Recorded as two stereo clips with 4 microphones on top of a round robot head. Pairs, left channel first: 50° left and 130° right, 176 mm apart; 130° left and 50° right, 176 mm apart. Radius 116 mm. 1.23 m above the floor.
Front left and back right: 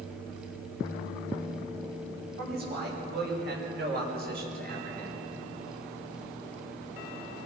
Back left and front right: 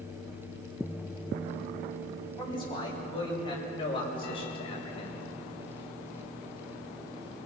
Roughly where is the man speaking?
Behind.